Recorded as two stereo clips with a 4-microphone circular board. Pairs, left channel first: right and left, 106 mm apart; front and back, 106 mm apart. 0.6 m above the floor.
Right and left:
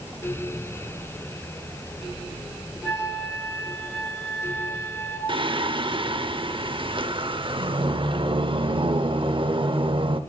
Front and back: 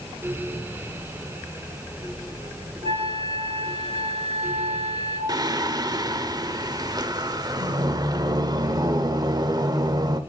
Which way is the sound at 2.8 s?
160° right.